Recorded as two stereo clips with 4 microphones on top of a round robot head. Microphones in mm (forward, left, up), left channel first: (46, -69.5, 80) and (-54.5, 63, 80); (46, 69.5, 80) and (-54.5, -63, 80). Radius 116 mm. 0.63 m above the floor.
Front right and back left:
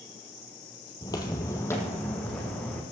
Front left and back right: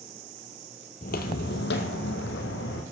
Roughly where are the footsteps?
Ahead.